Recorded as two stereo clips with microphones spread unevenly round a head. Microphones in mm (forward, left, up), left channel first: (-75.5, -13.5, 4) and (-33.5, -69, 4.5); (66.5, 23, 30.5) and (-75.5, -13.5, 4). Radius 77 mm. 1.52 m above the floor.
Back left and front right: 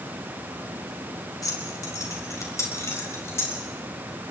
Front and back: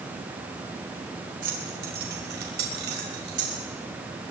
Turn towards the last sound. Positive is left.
turn(degrees=180)